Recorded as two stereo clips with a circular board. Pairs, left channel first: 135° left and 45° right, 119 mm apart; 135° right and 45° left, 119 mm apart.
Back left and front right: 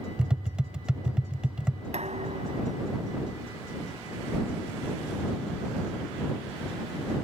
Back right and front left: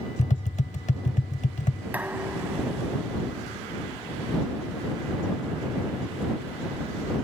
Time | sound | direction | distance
0.2 | tapping | 125° right | ?
1.9 | dishes clattering | 30° right | ?